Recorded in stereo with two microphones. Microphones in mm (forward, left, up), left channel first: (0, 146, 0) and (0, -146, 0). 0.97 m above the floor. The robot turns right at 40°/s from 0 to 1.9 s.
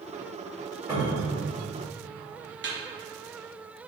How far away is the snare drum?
About 0.8 m.